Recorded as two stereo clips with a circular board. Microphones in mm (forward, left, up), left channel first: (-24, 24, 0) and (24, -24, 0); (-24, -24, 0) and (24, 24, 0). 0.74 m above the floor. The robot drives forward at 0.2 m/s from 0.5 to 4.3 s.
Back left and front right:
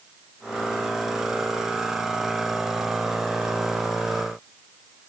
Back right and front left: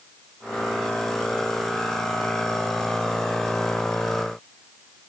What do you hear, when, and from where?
Only background noise.